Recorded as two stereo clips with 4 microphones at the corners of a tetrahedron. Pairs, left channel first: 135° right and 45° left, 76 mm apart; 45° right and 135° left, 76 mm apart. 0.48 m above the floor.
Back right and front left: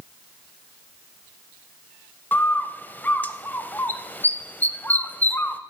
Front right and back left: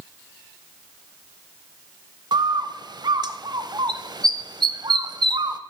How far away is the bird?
About 0.5 m.